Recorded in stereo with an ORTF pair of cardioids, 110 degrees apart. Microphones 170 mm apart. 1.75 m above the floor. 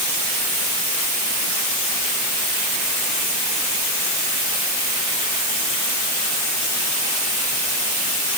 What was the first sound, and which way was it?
Only background noise.